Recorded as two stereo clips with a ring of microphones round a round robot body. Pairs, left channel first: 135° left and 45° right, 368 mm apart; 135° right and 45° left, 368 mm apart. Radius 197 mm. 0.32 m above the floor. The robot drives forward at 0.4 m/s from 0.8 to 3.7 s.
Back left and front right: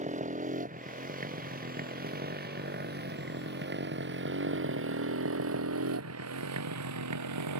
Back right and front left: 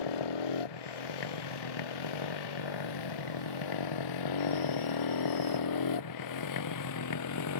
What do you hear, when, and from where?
0.0 s a motorcycle: 115° right; by 7.6 s 90° right